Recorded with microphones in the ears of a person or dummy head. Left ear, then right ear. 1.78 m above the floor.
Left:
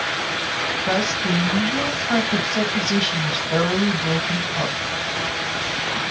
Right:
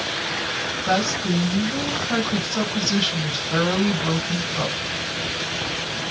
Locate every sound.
0.8 s a woman speaking: 20° left (ahead or behind), 1.5 m